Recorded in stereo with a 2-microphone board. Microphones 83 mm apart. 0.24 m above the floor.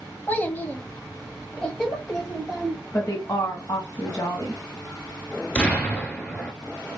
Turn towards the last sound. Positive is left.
turn(degrees=15)  # may be behind; listen again after turning